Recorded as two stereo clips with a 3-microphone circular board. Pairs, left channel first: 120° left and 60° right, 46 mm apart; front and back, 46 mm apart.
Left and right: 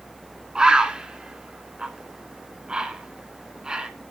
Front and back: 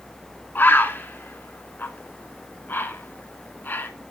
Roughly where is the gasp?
I don't hear a gasp.